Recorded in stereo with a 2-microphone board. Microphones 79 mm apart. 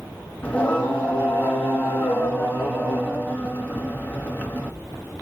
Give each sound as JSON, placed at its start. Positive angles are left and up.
{"t": 0.4, "sound": "singing", "side_deg": 20, "distance_m": 2.0}